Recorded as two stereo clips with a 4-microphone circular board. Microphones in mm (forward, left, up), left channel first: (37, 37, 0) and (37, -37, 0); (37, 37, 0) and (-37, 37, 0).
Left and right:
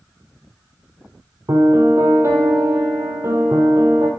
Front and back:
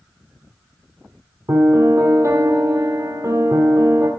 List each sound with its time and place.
1.5 s a piano: 140° right, 1.8 m